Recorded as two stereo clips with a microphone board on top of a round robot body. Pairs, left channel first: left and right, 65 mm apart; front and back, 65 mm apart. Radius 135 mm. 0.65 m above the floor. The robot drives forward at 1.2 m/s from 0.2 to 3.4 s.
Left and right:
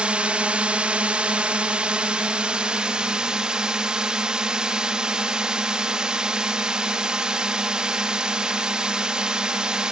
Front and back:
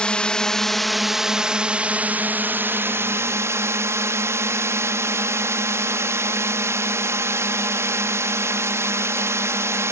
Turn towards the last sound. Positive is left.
turn(degrees=-160)